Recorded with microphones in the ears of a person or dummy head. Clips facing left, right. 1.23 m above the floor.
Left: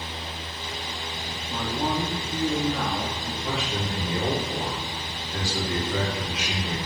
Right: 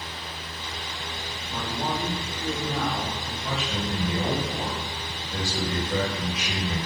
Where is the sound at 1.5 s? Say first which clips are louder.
Left 3 dB; 35° left (ahead or behind), 0.7 m.